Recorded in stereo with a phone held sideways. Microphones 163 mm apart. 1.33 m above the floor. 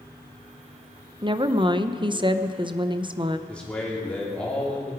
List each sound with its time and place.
1.2 s a woman speaking: 30° right (ahead or behind), 0.7 m
3.5 s a man speaking: 5° left (ahead or behind), 4 m